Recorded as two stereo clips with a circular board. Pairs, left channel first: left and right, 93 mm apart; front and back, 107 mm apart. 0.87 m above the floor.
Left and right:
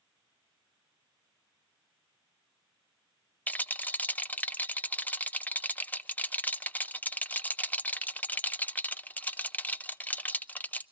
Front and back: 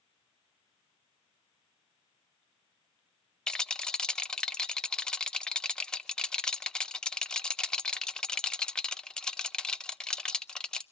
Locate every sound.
3.5 s a rattle: 65° left, 0.6 m